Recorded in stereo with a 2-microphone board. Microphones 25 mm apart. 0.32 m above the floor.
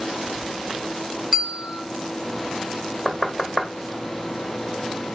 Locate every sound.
1.3 s a bell: 30° right (ahead or behind), 0.6 m
3.0 s knocking: centre (ahead or behind), 0.6 m